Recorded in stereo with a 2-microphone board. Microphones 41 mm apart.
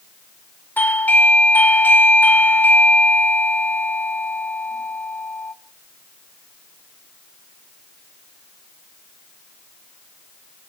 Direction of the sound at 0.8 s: 45° left (ahead or behind).